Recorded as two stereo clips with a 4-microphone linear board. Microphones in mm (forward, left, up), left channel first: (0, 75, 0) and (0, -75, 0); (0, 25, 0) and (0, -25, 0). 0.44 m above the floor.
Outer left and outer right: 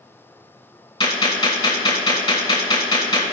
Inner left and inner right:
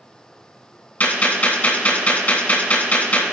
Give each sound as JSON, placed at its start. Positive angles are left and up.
{"t": 1.0, "sound": "a gunshot", "side_deg": 30, "distance_m": 2.0}